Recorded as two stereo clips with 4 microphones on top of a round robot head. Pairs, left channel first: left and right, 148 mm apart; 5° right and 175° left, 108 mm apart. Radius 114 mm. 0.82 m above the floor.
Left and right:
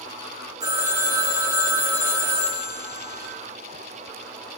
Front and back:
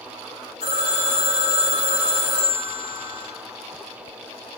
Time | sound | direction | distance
0.6 | a phone ringing | 35° right | 5.5 m